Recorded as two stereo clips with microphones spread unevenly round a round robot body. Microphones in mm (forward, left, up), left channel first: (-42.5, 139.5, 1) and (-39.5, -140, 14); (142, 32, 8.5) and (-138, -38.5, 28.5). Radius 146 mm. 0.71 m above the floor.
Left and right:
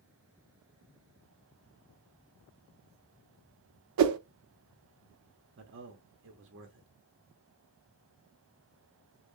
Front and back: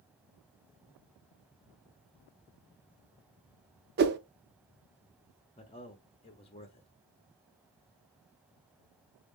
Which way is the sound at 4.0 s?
110° right.